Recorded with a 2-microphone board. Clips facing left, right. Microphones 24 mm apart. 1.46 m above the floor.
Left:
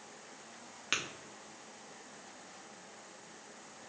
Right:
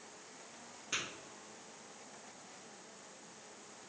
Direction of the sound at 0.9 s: 65° left (ahead or behind).